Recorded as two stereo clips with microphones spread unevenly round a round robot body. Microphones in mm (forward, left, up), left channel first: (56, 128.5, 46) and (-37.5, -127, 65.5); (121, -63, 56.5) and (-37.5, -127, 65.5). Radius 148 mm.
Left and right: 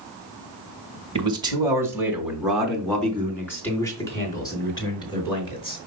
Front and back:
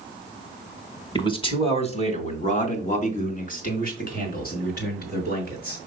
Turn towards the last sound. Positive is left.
turn(degrees=0)